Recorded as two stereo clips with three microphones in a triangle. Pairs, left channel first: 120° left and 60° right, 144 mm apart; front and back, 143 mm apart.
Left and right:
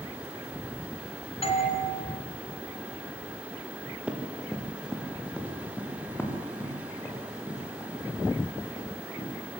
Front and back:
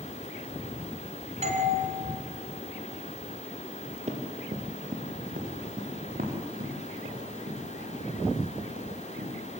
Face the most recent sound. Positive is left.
turn(degrees=180)